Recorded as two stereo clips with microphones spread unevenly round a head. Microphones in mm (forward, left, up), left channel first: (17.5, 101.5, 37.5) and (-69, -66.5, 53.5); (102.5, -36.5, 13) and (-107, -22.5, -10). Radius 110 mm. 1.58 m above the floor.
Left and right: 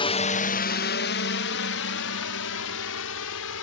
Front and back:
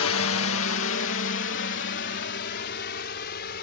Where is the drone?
5° left; by 3.6 s 45° left.